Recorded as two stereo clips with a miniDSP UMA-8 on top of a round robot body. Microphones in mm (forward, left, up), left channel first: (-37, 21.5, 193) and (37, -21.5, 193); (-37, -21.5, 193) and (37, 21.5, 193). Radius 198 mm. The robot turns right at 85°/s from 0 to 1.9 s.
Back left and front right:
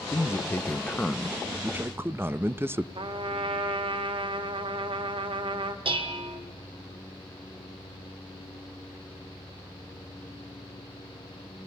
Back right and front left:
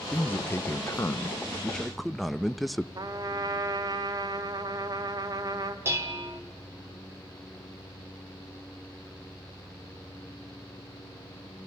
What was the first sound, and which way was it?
A man speaking, 145° left.